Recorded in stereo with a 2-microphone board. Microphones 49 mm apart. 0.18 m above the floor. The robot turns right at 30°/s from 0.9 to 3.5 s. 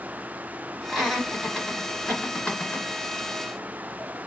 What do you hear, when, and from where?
0.9 s laughter: 10° right (ahead or behind), 1.9 m; by 2.9 s 30° left (ahead or behind), 1.9 m